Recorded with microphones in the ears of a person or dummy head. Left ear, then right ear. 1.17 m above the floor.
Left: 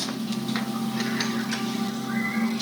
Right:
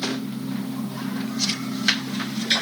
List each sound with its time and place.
Only background noise.